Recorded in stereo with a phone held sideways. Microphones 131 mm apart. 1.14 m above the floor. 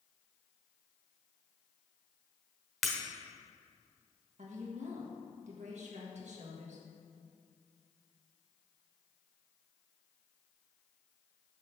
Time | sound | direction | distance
2.8 | breaking glass | centre (ahead or behind) | 1.1 m
4.4 | a woman speaking | 65° right (ahead or behind) | 1.3 m